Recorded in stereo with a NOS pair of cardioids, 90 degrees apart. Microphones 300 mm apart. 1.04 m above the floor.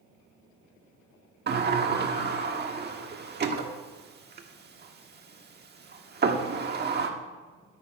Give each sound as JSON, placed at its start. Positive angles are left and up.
{"t": 1.5, "sound": "a sliding door", "azimuth_deg": -35, "distance_m": 1.4}